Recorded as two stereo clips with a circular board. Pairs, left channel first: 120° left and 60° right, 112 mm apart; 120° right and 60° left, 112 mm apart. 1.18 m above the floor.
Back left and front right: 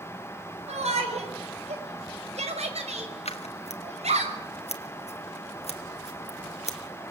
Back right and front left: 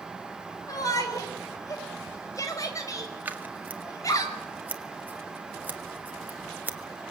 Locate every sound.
0.7 s a shout: 65° right, 6 m
3.2 s scissors: 135° left, 1.8 m